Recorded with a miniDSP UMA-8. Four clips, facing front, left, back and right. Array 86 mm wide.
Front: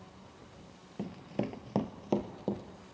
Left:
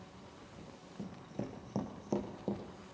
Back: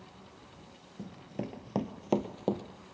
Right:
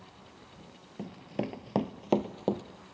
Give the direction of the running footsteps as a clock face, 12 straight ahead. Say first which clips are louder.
Right 8 dB, front 4 dB; 1 o'clock.